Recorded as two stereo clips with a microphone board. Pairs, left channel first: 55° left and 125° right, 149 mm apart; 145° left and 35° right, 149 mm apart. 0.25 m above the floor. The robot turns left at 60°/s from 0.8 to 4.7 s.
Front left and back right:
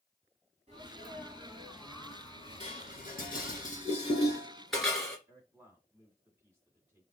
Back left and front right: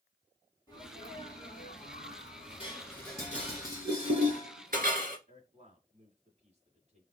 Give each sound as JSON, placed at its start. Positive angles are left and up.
{"t": 0.7, "sound": "a sneeze", "azimuth_deg": -160, "distance_m": 2.5}
{"t": 2.6, "sound": "dishes clattering", "azimuth_deg": 95, "distance_m": 2.0}
{"t": 5.3, "sound": "a man speaking", "azimuth_deg": -55, "distance_m": 2.0}